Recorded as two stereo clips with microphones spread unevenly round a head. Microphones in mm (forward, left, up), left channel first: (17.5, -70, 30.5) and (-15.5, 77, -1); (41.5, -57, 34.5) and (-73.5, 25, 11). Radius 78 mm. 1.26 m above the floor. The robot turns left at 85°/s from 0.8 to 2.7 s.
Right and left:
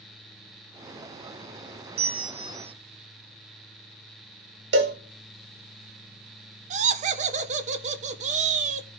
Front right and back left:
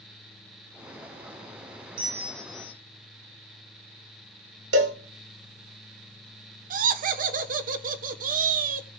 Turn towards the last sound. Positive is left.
turn(degrees=135)